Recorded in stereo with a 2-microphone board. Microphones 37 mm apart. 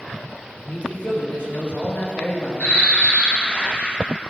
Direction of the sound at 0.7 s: 55° left (ahead or behind).